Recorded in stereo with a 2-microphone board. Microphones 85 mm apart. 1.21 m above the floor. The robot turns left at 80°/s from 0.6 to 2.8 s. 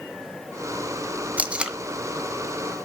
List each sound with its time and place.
1.4 s tape being pulled: 15° right (ahead or behind), 1.0 m; by 1.8 s 10° right (ahead or behind), 1.0 m